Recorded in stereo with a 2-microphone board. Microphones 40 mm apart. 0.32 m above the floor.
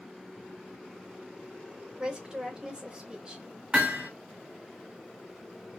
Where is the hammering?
20° right (ahead or behind), 1.2 m.